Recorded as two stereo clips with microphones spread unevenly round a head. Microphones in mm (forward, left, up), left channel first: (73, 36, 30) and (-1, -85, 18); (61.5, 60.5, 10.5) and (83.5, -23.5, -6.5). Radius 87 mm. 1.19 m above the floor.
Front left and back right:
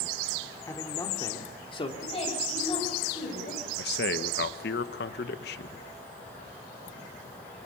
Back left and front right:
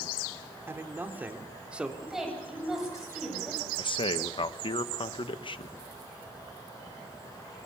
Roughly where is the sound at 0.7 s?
Ahead.